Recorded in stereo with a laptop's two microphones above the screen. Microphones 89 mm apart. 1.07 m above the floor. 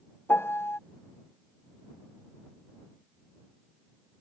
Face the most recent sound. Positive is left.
turn(degrees=25)  # may be behind; listen again after turning